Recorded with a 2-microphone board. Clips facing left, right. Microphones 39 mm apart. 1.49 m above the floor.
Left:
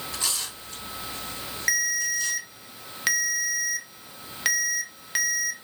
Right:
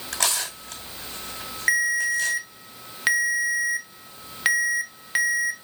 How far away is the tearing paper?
About 5 m.